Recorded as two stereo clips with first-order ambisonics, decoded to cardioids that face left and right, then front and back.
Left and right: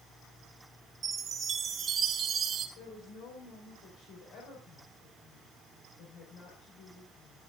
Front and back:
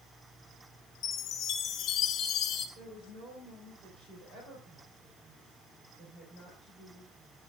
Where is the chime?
30° right, 1.5 m.